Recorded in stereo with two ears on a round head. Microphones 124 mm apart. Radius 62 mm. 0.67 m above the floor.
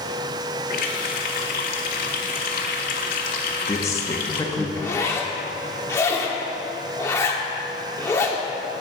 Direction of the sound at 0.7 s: 65° left (ahead or behind).